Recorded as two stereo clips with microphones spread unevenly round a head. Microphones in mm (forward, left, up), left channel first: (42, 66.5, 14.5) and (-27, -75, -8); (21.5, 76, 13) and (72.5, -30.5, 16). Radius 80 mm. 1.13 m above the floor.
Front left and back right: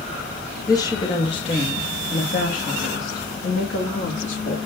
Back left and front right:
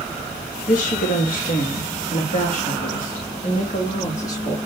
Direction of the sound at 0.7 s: 135° left.